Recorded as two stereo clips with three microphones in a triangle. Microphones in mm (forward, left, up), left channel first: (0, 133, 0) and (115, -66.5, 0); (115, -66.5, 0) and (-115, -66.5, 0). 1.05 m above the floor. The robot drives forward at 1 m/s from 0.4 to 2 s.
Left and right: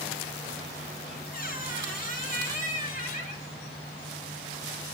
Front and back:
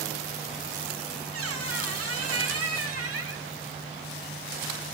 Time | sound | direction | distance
1.3 | a squeak | 165° left | 1.1 m